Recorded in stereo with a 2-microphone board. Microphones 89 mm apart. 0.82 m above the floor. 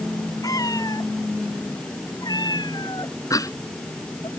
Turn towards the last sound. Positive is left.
turn(degrees=40)  # may be behind; listen again after turning